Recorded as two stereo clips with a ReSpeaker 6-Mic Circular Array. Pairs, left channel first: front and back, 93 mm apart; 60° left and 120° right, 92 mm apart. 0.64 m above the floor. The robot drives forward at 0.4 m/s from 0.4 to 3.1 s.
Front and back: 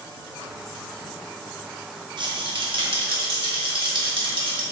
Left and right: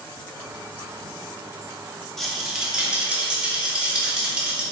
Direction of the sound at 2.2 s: 145° left.